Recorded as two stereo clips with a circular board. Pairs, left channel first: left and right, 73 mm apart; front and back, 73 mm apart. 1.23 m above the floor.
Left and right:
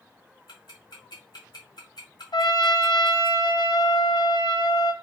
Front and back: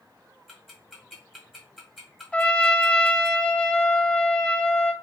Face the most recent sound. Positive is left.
turn(degrees=75)